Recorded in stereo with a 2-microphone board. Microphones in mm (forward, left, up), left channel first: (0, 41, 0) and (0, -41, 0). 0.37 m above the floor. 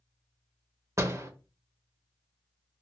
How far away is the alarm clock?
I don't hear an alarm clock.